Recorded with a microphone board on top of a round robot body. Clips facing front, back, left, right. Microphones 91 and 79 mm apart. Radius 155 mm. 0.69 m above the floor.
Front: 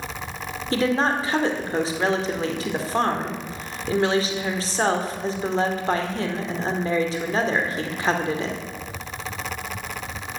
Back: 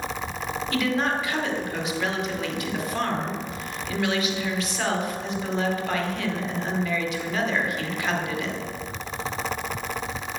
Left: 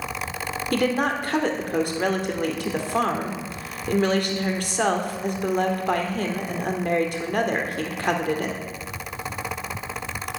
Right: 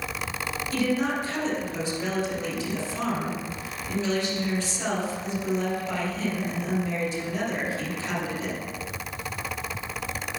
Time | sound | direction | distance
0.7 | a woman speaking | 60° left | 2 m